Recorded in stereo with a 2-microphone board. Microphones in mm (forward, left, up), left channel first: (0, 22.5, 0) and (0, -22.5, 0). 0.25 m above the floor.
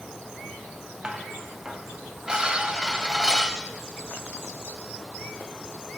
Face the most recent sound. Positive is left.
turn(degrees=-20)  # may be behind; listen again after turning